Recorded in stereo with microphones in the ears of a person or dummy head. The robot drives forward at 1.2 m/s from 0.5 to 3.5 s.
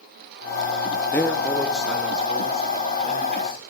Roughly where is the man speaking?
Centre.